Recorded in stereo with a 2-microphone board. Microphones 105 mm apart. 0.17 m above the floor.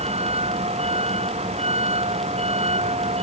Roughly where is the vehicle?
Right.